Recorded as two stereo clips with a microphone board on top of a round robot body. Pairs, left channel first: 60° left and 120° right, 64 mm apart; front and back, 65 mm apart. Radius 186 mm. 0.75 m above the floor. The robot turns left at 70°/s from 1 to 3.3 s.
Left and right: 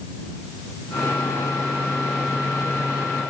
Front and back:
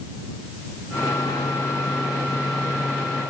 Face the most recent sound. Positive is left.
No sound to turn to.